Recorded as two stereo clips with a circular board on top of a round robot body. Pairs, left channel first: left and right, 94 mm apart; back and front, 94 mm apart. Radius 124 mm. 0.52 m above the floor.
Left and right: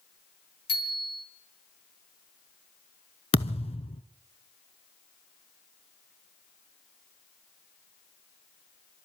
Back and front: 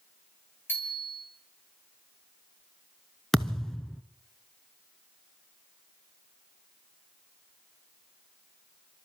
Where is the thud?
95° left, 0.8 m.